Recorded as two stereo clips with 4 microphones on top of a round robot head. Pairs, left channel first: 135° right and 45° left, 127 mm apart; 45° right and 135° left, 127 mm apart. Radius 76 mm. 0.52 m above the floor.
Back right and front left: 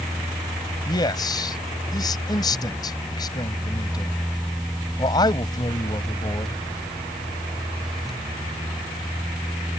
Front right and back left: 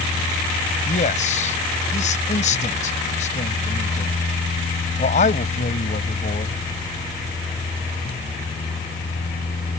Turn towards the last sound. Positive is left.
turn(degrees=-75)